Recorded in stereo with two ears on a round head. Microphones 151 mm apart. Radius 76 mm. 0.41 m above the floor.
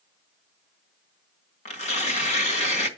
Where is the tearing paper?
40° left (ahead or behind), 1.5 m.